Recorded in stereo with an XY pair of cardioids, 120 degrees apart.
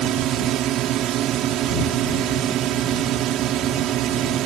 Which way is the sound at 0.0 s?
65° right.